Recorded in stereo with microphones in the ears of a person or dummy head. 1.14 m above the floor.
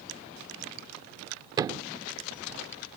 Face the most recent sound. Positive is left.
turn(degrees=-20)  # may be behind; listen again after turning